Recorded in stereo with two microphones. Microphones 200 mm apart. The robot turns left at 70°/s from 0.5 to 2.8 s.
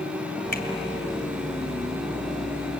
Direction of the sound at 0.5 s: 45° left (ahead or behind).